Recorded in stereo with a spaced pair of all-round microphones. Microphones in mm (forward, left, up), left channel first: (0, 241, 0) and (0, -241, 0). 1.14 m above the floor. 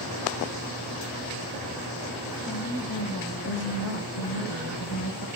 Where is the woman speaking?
40° left (ahead or behind), 1.7 m; by 5.3 s 50° left (ahead or behind), 1.5 m.